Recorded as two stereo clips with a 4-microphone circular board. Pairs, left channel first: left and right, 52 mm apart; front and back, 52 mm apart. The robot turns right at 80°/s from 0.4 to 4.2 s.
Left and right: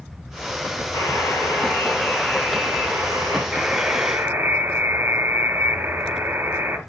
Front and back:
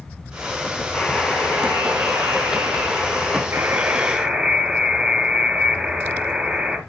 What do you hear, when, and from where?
0.9 s a buzzer: 60° left, 5 m; by 3.4 s 105° right, 5 m
3.5 s a buzzer: 155° right, 2 m; by 6.8 s 100° right, 2 m